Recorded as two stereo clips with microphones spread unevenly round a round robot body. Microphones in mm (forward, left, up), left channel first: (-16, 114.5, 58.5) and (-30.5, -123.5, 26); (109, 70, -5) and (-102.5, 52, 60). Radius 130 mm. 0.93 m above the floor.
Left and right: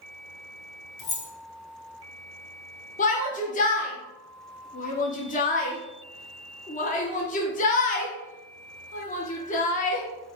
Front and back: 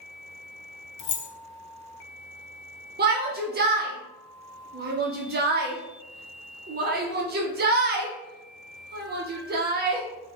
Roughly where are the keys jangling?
Ahead left.